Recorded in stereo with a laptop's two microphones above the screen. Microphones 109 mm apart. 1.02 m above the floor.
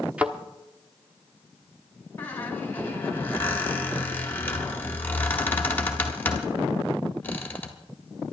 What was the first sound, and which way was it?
A thud, 10° right (ahead or behind).